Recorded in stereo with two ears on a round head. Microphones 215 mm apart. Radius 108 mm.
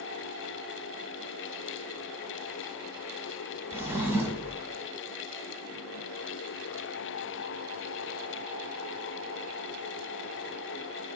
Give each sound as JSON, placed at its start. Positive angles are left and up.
{"t": 3.7, "sound": "a drawer", "side_deg": -10, "distance_m": 1.4}